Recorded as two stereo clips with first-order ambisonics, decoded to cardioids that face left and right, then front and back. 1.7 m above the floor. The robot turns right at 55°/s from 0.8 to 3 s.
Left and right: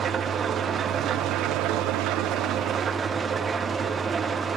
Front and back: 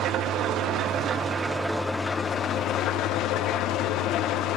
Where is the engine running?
145° right, 1.0 m; by 4.6 s 25° right, 1.0 m.